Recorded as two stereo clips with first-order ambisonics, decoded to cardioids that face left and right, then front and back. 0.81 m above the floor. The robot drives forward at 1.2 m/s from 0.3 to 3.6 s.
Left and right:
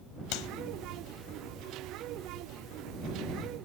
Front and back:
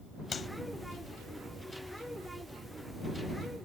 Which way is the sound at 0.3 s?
65° left.